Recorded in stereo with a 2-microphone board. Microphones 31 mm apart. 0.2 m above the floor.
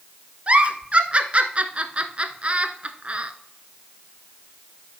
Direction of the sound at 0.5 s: 40° right (ahead or behind).